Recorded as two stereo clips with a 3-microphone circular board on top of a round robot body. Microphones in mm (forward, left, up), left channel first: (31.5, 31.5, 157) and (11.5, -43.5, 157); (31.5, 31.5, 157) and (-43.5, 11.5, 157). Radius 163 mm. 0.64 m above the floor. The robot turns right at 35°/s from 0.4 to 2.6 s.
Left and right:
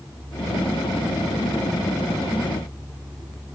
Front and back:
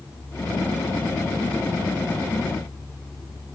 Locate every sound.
Only background noise.